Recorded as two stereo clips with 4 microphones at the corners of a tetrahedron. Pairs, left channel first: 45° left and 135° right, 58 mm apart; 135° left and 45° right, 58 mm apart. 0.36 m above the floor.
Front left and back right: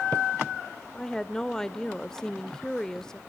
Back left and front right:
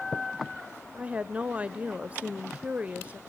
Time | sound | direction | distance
0.9 | a woman speaking | 20° right | 0.9 m